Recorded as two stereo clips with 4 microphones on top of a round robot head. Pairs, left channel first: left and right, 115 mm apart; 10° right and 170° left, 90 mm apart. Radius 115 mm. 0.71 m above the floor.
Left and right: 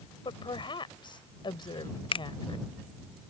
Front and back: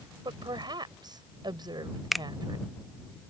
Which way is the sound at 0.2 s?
135° left.